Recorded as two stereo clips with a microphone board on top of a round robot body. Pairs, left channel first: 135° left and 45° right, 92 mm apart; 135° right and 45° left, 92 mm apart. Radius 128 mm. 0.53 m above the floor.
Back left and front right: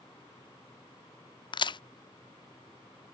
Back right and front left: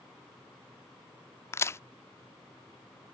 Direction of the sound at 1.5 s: 165° left.